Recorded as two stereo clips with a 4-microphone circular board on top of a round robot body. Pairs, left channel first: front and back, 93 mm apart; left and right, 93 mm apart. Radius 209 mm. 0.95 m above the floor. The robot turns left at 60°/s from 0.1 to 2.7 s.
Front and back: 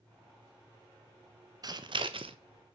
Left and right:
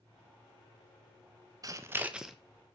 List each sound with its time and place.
1.6 s scissors: 135° right, 1.4 m; by 2.4 s straight behind, 1.4 m